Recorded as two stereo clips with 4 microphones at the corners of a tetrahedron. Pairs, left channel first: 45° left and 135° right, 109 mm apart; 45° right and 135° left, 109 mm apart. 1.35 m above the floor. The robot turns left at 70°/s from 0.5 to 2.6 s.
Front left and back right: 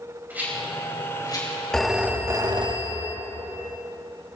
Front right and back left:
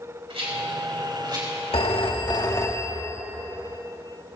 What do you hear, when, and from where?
0.3 s a rattle: 150° left, 5 m; by 2.7 s 5° left, 5 m
1.7 s a phone ringing: 40° right, 1.3 m; by 3.2 s 100° right, 1.3 m